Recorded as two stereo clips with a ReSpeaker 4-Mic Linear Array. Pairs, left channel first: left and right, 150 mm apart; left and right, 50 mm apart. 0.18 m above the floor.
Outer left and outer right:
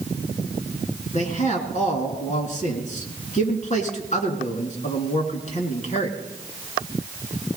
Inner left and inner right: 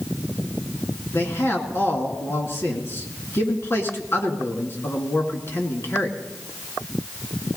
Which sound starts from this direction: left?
A man speaking, at 1.1 s.